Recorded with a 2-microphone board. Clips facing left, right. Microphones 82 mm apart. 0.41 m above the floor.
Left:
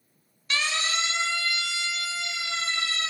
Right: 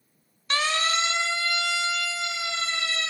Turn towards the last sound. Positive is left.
turn(degrees=-65)  # may be behind; listen again after turning